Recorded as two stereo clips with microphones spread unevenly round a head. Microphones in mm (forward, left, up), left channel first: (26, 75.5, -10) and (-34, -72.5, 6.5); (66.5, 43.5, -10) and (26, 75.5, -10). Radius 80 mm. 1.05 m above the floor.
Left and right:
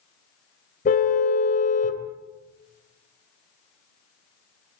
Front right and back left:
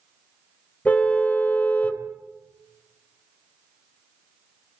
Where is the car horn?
20° left, 2.5 m.